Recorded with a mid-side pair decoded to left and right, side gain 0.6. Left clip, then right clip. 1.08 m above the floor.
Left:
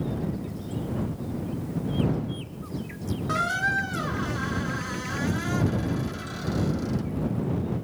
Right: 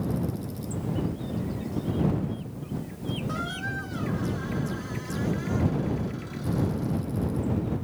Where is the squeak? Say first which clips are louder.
Left 10 dB; 45° left.